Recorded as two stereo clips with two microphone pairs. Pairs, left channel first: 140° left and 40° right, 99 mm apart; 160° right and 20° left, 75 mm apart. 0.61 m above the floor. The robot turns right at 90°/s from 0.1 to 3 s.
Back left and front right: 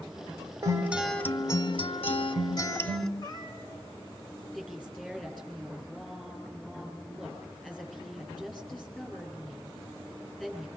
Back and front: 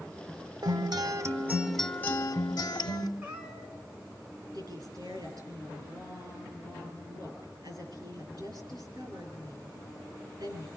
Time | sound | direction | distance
0.6 | a guitar | 10° left | 1.1 m
3.2 | a cat meowing | 95° left | 3 m
4.5 | a woman speaking | 55° left | 9 m